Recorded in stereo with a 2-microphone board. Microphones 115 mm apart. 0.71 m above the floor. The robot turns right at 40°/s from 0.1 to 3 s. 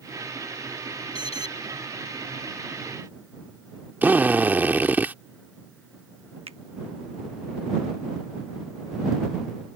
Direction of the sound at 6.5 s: 60° right (ahead or behind).